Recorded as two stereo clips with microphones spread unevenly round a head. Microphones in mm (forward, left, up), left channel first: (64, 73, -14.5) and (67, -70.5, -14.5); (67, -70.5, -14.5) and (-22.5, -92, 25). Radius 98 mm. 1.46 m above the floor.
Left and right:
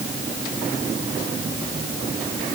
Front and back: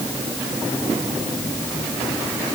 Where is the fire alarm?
I don't hear a fire alarm.